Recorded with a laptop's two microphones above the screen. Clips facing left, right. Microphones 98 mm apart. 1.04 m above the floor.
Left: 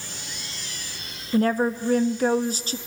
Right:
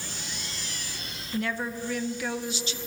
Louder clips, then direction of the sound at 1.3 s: Left 9 dB; 40° left (ahead or behind).